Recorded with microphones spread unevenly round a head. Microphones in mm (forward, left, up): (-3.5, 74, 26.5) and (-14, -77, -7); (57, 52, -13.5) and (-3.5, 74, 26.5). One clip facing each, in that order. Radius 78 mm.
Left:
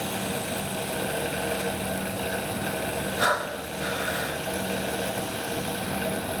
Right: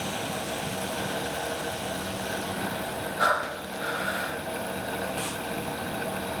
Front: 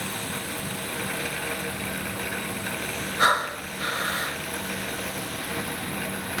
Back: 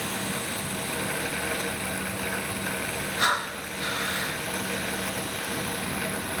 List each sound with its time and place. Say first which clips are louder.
3.2 s breathing: right 1 dB, front 5 dB; 25° left, 0.8 m